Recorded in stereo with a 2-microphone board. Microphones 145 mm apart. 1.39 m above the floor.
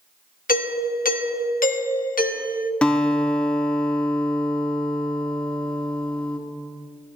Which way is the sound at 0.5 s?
75° left (ahead or behind).